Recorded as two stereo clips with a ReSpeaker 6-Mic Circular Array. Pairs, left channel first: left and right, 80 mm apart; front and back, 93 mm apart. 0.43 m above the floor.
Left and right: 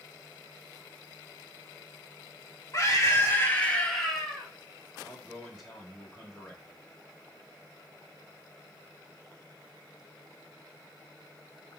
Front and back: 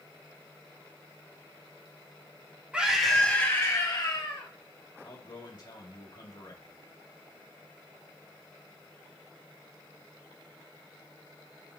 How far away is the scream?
About 1.3 m.